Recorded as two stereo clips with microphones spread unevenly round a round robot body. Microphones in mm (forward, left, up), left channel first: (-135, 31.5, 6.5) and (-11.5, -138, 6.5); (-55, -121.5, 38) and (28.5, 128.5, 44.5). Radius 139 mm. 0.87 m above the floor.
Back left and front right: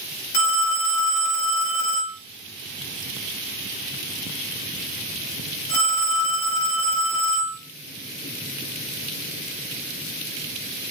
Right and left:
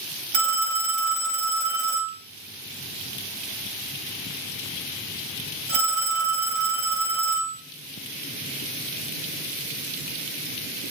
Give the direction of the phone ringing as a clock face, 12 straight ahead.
9 o'clock.